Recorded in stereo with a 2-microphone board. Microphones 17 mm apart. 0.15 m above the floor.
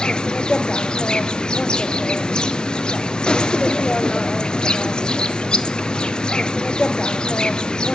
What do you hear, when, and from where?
0.0 s an insect: 65° left (ahead or behind), 0.8 m